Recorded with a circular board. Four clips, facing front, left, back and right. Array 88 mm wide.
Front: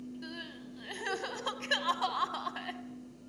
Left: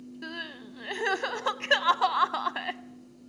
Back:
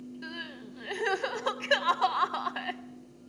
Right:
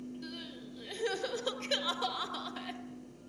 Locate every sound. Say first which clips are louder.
0.2 s crying: left 5 dB, back 3 dB; 110° left, 0.7 m